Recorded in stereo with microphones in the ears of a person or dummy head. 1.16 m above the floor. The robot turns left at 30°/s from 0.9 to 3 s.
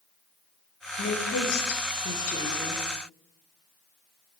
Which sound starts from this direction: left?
A woman speaking, at 1.0 s.